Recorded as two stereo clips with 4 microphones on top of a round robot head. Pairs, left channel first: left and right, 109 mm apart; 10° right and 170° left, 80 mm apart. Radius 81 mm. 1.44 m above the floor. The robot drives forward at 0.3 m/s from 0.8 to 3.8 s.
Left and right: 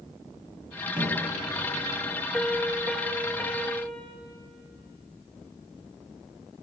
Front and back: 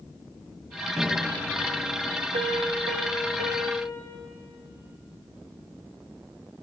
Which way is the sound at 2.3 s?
175° left.